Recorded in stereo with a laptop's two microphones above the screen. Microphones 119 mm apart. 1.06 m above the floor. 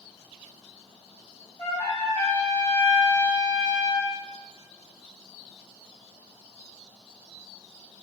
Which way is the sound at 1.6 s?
20° left (ahead or behind).